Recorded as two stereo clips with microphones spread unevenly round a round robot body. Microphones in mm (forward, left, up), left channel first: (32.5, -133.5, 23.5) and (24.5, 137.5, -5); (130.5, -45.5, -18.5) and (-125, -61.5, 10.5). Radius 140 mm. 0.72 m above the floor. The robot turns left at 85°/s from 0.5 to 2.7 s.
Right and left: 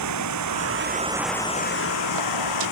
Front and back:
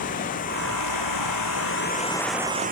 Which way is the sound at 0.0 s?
70° left.